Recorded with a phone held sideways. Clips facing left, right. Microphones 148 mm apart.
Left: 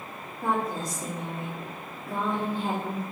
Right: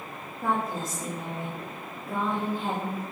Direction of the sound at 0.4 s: 5° right (ahead or behind).